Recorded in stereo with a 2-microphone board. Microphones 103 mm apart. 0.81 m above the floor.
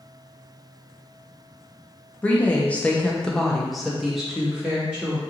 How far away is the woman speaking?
About 0.7 m.